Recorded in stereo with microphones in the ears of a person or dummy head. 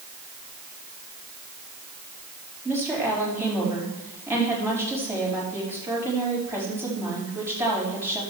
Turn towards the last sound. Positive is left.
turn(degrees=-15)  # may be behind; listen again after turning